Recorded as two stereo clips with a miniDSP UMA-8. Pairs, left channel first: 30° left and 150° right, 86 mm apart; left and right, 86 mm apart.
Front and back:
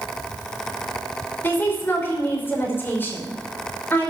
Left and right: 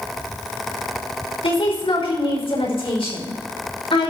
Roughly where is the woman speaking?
Left.